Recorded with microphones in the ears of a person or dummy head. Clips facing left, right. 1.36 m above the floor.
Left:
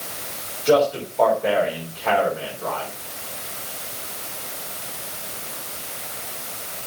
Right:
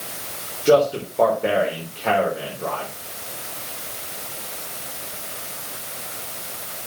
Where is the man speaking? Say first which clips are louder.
Right 2 dB; 35° right (ahead or behind), 4.5 m.